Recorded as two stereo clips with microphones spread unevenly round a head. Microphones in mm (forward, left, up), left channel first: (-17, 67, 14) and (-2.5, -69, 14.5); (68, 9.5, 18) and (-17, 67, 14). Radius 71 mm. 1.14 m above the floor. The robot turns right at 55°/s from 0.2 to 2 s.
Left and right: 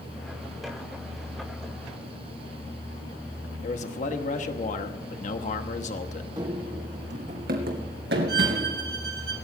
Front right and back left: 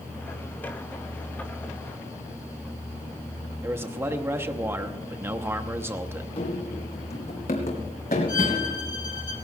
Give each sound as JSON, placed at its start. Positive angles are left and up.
{"t": 3.6, "sound": "a man speaking", "azimuth_deg": 85, "distance_m": 1.0}
{"t": 6.4, "sound": "running footsteps", "azimuth_deg": -25, "distance_m": 2.0}
{"t": 8.3, "sound": "a violin", "azimuth_deg": -95, "distance_m": 2.5}